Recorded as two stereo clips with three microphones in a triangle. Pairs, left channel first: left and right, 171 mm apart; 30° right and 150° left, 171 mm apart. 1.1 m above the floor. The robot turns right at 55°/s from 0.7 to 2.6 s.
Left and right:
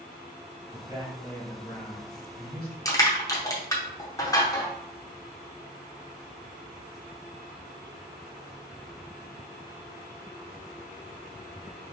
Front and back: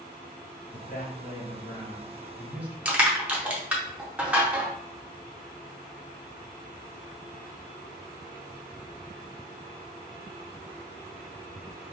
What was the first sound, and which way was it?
A man speaking, 35° right.